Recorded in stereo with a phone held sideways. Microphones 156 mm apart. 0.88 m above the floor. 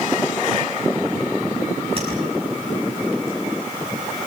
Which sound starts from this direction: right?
Tapping, at 2.0 s.